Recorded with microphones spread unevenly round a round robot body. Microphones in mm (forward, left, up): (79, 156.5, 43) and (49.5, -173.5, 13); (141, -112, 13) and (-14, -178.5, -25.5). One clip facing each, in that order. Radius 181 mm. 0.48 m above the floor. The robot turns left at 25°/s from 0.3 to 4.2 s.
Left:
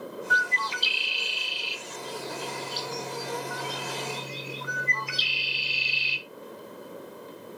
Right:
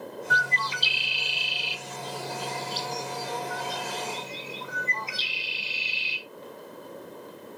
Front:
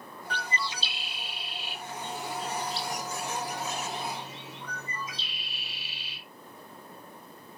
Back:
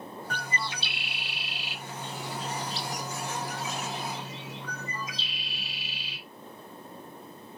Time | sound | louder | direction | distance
0.3 | a bird | even, front 2 dB | 105° right | 0.7 m